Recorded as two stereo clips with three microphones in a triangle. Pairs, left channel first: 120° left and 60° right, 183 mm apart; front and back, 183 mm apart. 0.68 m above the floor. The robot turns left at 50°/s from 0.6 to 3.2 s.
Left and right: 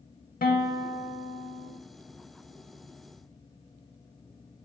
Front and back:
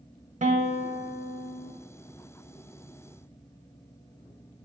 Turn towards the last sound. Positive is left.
turn(degrees=10)